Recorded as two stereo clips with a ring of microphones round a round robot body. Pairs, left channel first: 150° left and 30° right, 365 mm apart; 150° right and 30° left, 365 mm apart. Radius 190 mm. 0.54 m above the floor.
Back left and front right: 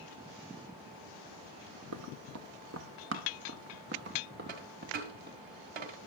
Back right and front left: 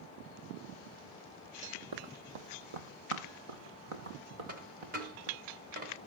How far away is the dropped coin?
About 2.0 m.